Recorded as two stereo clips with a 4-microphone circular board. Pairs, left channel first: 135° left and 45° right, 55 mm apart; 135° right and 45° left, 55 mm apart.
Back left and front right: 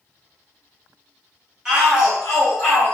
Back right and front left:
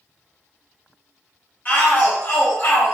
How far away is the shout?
About 1.0 m.